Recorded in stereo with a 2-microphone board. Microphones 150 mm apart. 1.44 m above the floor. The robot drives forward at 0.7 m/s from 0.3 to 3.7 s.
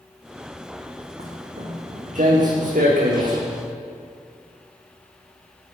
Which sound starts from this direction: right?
Footsteps, at 1.2 s.